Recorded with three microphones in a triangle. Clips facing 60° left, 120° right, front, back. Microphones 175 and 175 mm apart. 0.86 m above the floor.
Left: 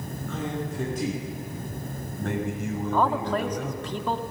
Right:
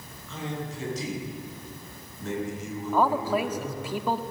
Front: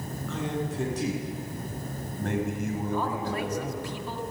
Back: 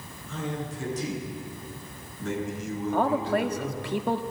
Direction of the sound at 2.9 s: 160° left.